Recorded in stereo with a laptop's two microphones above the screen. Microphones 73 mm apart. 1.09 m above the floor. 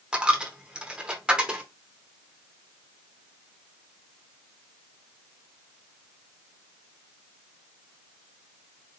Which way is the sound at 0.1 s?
15° right (ahead or behind).